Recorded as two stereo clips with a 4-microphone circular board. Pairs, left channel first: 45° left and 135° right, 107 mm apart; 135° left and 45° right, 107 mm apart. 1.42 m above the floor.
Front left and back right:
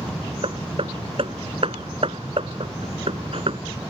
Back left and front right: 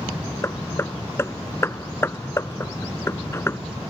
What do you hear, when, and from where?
0.4 s hammering: 160° right